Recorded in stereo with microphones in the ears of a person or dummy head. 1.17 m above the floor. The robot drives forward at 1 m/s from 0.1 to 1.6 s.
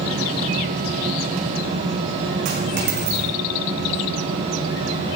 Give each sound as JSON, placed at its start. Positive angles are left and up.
{"t": 2.5, "sound": "a dropped coin", "side_deg": -50, "distance_m": 4.0}